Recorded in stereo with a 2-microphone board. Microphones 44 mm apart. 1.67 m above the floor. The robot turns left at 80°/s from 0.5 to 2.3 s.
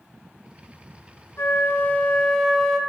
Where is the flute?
85° left, 1.5 m; by 2.8 s 10° left, 1.5 m.